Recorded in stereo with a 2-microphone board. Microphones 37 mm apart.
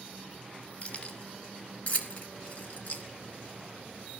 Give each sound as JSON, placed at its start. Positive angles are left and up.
{"t": 0.8, "sound": "keys jangling", "side_deg": 40, "distance_m": 2.5}